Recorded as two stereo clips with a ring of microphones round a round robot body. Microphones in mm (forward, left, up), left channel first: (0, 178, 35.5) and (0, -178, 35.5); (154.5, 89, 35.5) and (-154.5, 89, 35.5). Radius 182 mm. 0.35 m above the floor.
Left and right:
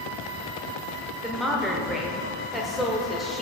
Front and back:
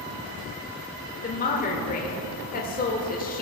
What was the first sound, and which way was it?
A woman speaking, straight ahead.